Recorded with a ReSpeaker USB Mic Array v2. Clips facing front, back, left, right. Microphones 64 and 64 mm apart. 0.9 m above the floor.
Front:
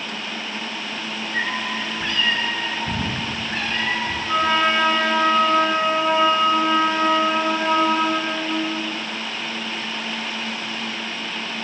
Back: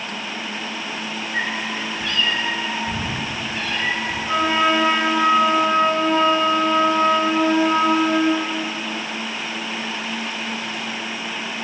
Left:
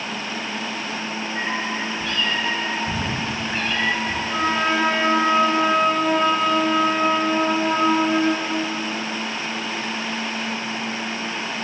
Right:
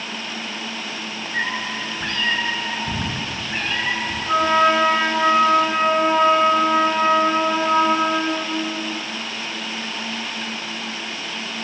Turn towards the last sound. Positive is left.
turn(degrees=-105)